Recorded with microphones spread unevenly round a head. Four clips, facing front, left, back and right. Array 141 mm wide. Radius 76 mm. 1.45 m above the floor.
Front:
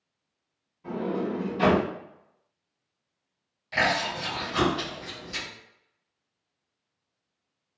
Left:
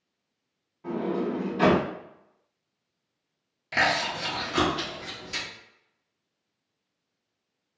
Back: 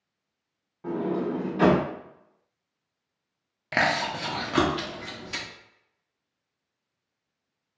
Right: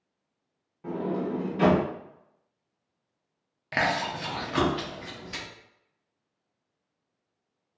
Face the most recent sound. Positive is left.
turn(degrees=180)